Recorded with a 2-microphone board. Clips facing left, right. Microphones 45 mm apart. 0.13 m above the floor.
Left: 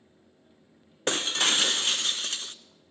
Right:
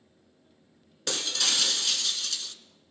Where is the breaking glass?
35° left (ahead or behind), 0.6 m.